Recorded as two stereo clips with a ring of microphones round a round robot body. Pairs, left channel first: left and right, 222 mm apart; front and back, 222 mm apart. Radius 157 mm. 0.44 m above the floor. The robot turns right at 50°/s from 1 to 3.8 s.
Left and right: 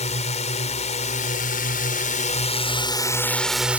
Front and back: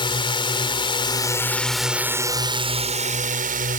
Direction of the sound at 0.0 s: 50° left.